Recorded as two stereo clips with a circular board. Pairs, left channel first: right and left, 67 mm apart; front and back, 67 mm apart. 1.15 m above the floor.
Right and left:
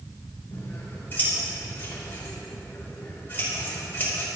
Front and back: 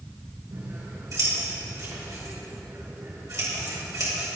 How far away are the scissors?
About 5.5 m.